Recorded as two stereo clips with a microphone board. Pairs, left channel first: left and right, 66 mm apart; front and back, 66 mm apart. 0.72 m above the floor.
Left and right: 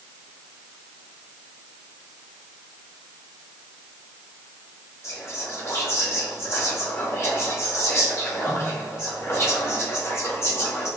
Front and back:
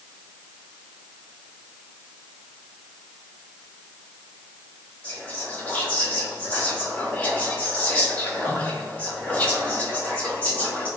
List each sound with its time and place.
5.0 s whispering: 65° left, 1.2 m